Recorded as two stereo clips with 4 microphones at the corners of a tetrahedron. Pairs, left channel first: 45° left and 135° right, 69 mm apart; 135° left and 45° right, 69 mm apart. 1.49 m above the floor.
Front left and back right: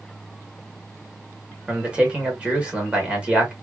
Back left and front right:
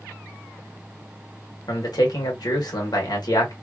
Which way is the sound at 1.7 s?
150° left.